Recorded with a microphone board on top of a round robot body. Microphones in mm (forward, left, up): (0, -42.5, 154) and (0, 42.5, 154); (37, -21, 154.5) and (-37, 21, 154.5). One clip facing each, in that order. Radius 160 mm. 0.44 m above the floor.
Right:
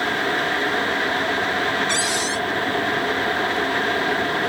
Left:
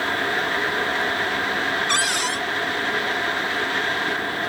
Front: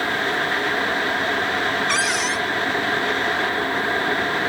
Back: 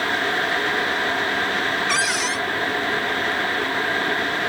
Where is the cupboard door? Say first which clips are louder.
Even, front 1 dB; 65° left.